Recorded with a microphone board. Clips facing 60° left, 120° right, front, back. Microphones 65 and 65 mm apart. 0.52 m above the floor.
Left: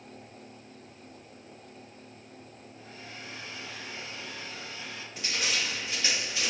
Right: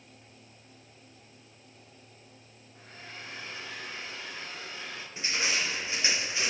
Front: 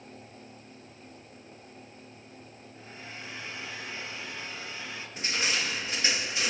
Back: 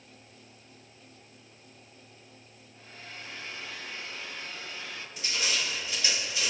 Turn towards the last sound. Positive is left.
turn(degrees=-50)